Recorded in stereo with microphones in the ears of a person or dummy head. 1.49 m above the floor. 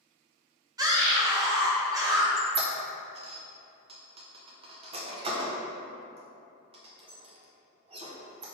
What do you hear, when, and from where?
0.8 s a scream: 20° right (ahead or behind), 0.6 m
2.4 s a squeak: 30° right (ahead or behind), 0.6 m